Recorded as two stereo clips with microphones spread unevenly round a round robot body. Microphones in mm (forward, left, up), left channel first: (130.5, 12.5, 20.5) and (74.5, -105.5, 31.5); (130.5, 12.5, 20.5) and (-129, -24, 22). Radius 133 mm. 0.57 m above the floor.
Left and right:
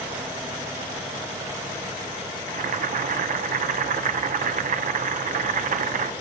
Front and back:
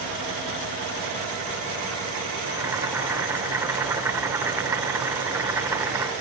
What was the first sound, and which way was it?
Boiling, 90° right.